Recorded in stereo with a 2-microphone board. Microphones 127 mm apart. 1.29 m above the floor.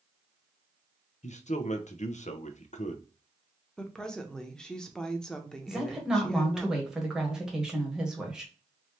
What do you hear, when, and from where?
1.2 s a man speaking: 70° left (ahead or behind), 0.6 m
3.8 s a woman speaking: 5° left (ahead or behind), 0.8 m
5.7 s a woman speaking: 5° right (ahead or behind), 1.5 m